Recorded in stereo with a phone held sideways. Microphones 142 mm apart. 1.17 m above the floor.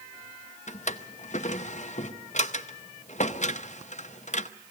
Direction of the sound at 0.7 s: 60° left (ahead or behind).